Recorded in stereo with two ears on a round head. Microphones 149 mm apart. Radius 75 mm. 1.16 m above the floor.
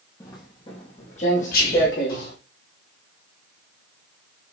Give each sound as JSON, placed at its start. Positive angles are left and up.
{"t": 0.2, "sound": "footsteps", "side_deg": 20, "distance_m": 1.5}
{"t": 1.5, "sound": "whispering", "side_deg": 55, "distance_m": 2.5}